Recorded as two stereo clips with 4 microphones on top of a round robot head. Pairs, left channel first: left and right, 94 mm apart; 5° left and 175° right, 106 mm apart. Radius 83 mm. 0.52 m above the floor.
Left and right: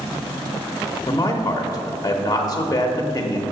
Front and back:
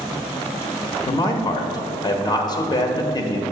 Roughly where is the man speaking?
Ahead left.